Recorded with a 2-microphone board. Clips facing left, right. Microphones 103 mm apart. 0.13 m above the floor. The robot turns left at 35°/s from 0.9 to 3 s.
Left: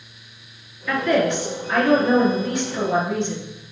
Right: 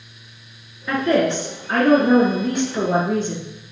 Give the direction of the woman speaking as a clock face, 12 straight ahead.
1 o'clock.